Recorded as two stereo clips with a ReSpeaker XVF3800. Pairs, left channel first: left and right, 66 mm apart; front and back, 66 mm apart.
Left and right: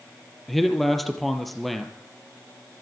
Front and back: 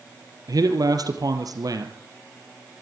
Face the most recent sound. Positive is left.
turn(degrees=180)